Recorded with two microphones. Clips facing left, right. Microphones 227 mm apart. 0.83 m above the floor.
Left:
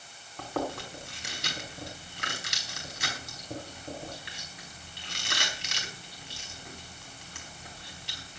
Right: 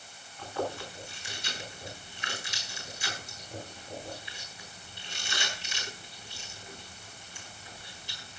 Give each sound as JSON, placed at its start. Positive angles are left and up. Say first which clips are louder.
{"t": 0.4, "sound": "chewing", "louder": "left 1 dB", "side_deg": 75, "distance_m": 4.0}